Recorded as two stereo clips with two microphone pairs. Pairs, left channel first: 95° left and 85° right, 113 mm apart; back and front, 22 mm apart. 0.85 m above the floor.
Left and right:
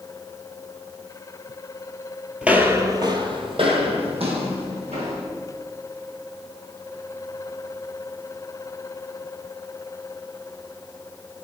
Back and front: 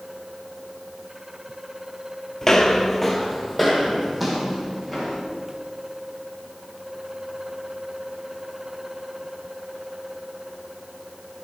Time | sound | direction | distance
2.4 | footsteps | 160° right | 0.9 m